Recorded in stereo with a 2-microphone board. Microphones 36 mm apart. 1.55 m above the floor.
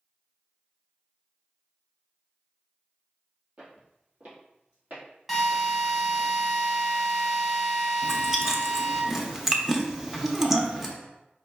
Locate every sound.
3.6 s footsteps: 40° right (ahead or behind), 1.9 m; by 6.3 s 60° right (ahead or behind), 3.5 m
5.3 s a drill: 5° right (ahead or behind), 1.2 m
8.0 s chewing: 10° right (ahead or behind), 0.5 m